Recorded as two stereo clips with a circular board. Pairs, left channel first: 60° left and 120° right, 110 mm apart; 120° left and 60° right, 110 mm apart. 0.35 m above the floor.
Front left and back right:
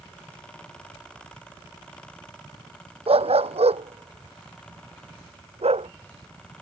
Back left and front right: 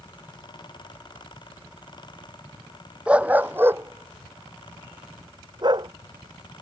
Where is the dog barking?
140° right; by 5.9 s 105° right.